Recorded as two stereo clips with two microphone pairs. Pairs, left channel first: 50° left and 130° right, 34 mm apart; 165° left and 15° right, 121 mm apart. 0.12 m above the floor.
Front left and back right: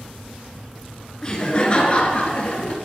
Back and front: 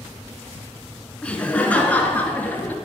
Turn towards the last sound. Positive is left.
turn(degrees=90)